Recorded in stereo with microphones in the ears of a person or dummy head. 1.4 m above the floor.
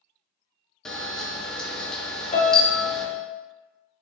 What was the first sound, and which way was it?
A camera shutter, 5° left (ahead or behind).